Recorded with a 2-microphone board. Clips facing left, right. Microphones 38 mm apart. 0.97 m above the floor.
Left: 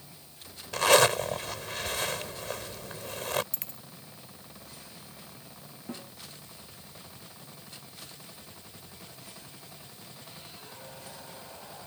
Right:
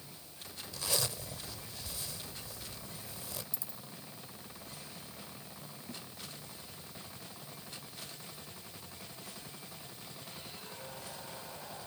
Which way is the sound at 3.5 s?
70° left (ahead or behind).